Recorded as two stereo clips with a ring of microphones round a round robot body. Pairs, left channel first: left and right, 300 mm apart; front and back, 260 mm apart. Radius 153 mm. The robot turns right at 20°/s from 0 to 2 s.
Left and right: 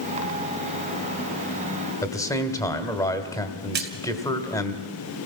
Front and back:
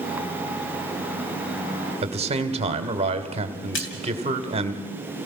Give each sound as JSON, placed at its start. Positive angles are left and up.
{"t": 2.0, "sound": "a man speaking", "azimuth_deg": 155, "distance_m": 1.5}
{"t": 3.7, "sound": "a splash", "azimuth_deg": -40, "distance_m": 2.5}